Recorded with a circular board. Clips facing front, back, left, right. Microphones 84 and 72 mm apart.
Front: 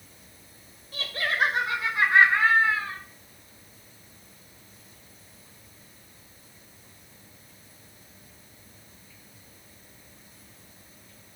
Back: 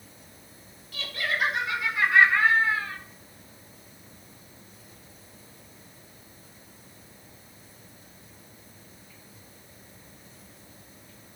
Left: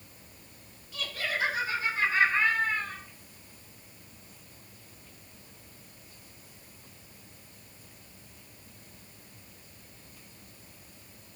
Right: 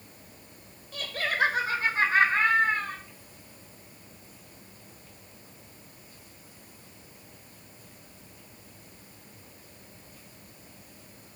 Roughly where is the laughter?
Ahead right.